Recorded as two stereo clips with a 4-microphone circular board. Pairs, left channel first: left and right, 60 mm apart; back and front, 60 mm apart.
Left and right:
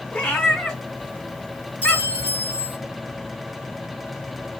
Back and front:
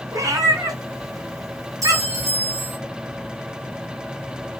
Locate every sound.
0.1 s a cat meowing: 15° left, 1.4 m
1.8 s a clink: 25° right, 1.4 m